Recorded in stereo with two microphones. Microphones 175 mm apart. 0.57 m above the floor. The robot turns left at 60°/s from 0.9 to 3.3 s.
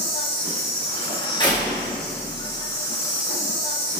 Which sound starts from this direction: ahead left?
A door slam, at 1.4 s.